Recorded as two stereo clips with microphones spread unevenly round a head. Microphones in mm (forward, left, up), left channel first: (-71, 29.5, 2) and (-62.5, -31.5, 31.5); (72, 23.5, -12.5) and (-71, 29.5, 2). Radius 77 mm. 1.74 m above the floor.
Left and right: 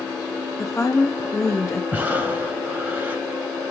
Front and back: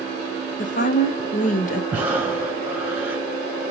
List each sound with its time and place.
0.6 s a woman speaking: 15° left, 0.8 m
1.9 s breathing: 110° right, 1.2 m